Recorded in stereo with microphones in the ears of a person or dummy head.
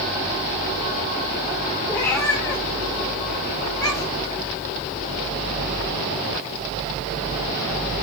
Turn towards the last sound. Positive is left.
turn(degrees=20)  # may be behind; listen again after turning